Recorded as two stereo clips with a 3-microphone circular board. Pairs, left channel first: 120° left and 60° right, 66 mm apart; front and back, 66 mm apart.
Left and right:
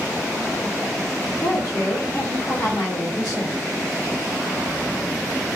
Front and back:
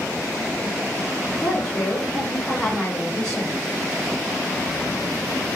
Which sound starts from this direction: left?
A woman speaking, at 1.4 s.